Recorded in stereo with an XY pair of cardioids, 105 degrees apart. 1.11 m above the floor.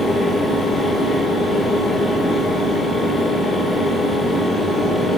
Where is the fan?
5° right, 1.7 m.